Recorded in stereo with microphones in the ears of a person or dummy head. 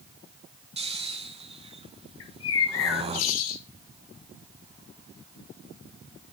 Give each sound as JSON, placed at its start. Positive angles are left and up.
{"t": 0.8, "sound": "snoring", "side_deg": -30, "distance_m": 2.0}
{"t": 2.2, "sound": "a bird", "side_deg": 75, "distance_m": 2.0}